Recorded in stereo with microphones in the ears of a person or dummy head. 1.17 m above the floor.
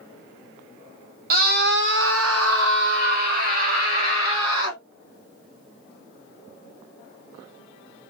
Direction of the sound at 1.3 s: 60° right (ahead or behind).